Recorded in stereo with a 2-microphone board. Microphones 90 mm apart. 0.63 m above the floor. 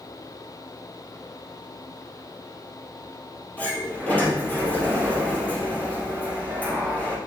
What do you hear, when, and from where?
3.6 s a sliding door: 15° left (ahead or behind), 2.5 m